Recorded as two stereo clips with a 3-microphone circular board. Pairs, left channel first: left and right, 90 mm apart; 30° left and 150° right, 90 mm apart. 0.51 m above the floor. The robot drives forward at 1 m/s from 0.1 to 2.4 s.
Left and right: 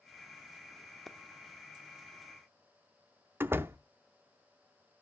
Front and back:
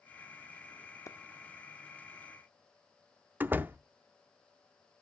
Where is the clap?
5° left, 0.6 m.